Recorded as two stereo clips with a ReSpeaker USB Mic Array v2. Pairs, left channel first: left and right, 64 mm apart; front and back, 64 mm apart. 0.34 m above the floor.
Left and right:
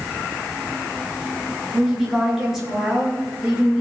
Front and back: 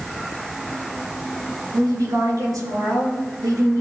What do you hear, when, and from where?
1.7 s a woman speaking: straight behind, 5.5 m; by 3.8 s 165° right, 5.5 m